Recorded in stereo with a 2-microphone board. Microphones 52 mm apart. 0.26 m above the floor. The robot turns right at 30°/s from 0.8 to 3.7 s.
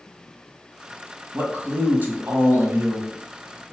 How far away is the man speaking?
About 1.4 m.